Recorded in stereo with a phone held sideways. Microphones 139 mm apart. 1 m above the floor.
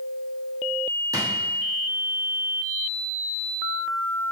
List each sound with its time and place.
1.1 s a drawer: 25° right (ahead or behind), 1.1 m